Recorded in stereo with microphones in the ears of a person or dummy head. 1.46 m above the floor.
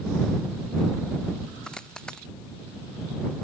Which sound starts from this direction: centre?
A dropped coin, at 1.6 s.